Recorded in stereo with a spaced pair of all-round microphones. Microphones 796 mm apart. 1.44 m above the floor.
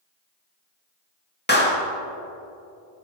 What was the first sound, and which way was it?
A clap, 10° left (ahead or behind).